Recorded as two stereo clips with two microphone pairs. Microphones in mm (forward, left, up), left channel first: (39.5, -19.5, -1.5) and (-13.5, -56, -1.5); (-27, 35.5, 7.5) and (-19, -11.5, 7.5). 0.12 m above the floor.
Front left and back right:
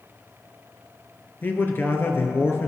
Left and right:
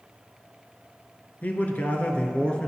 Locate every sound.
1.4 s a man speaking: 70° left, 2 m; by 2.7 s 45° left, 2 m